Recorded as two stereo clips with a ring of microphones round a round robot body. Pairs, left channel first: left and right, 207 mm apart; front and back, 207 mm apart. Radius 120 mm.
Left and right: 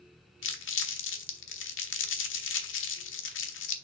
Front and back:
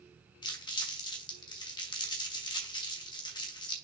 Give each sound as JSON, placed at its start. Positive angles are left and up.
{"t": 0.4, "sound": "crumpling", "azimuth_deg": 70, "distance_m": 1.4}